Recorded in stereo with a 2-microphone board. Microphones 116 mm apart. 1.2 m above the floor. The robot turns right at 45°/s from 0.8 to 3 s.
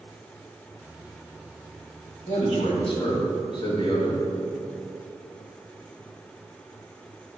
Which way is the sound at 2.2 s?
100° left.